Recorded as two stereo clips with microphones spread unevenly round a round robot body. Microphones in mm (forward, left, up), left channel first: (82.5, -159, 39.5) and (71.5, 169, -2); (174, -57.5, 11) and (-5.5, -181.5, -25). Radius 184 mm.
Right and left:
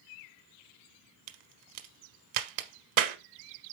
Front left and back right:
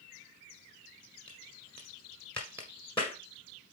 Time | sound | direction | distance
1.3 | a crack | 110° left | 0.9 m